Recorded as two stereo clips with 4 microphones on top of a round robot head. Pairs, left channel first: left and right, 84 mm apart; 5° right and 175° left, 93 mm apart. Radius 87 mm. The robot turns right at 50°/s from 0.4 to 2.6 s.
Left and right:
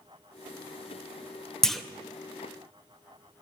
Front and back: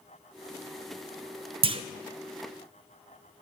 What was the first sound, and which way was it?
A clunk, 175° left.